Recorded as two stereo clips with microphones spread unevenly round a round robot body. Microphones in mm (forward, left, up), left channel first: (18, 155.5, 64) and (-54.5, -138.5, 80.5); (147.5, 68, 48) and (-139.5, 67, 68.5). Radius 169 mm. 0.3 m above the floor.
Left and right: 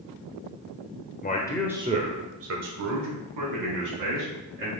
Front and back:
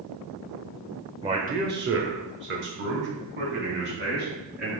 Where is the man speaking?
110° left, 1.1 m; by 4.7 s 120° right, 4.5 m.